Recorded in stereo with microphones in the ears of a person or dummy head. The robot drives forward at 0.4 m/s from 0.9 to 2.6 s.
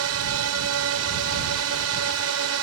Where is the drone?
75° right (ahead or behind).